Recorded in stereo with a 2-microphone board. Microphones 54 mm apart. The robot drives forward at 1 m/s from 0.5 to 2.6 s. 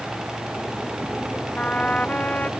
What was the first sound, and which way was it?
A trumpet, 30° left (ahead or behind).